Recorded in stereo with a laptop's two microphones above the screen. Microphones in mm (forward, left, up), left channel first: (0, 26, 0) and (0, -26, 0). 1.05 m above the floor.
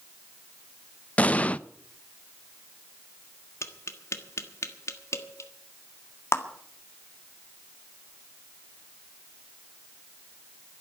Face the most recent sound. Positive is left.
turn(degrees=60)  # may be behind; listen again after turning